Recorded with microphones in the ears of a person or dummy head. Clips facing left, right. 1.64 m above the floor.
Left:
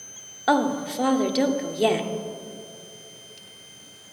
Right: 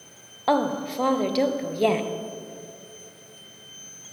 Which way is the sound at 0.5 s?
5° left (ahead or behind).